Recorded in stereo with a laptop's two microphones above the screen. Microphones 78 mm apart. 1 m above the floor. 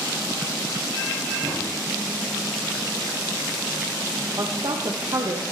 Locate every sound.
1.4 s a drawer: 45° right (ahead or behind), 3.5 m
4.4 s a woman speaking: 60° right (ahead or behind), 0.9 m